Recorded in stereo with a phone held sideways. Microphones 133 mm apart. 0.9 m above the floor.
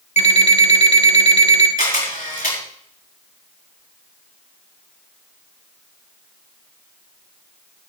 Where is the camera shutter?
85° left, 5.5 m.